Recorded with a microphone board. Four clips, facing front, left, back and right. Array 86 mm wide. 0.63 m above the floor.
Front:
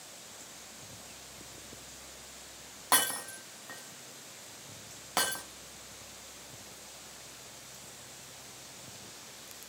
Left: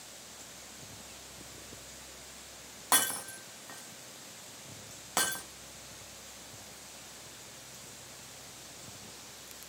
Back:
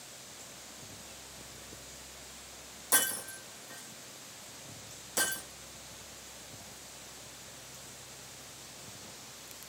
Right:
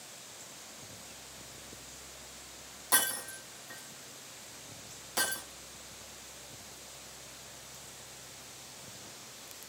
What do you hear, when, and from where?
2.9 s breaking glass: 40° left, 3.5 m